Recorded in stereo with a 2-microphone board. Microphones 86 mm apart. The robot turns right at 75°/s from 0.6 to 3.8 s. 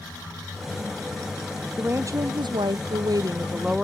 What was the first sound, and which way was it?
A woman speaking, 155° right.